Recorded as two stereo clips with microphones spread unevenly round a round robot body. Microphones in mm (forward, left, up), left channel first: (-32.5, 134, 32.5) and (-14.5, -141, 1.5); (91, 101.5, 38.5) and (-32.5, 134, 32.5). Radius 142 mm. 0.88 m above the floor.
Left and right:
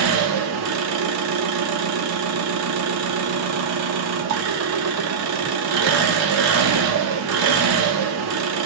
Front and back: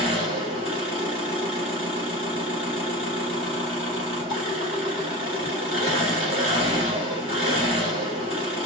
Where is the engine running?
125° right, 1.0 m.